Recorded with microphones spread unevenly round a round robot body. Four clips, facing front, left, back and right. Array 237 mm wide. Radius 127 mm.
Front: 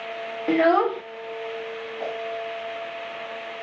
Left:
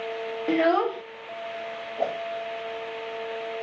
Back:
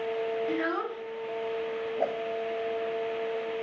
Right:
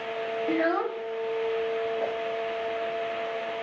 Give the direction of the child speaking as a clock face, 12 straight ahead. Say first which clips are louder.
Left 5 dB, front 11 dB; 11 o'clock.